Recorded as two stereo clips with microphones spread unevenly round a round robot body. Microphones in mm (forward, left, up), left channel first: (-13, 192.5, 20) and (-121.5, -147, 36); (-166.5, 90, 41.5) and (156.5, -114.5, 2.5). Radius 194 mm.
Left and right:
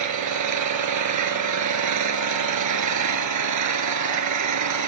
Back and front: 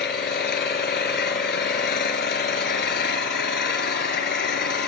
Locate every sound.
0.0 s an engine running: 145° right, 3 m